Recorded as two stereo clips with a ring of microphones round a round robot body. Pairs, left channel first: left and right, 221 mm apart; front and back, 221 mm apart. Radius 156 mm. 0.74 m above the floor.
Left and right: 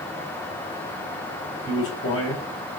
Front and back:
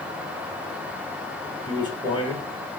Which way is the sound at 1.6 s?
70° left.